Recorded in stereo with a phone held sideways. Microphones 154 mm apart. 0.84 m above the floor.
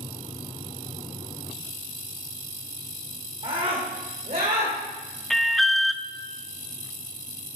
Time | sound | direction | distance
3.4 | a scream | 35° right (ahead or behind) | 2.5 m
5.3 | an alarm | centre (ahead or behind) | 0.7 m